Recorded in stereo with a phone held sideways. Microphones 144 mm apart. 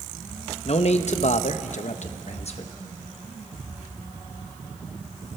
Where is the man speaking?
50° left (ahead or behind), 1.0 m.